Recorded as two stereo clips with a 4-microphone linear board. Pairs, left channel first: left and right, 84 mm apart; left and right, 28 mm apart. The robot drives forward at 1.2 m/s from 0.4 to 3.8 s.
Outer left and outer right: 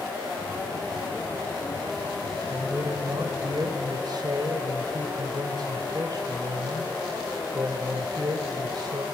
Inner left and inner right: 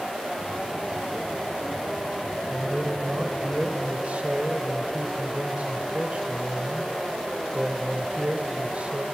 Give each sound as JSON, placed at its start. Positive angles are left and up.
{"t": 2.5, "sound": "a man speaking", "side_deg": -35, "distance_m": 2.5}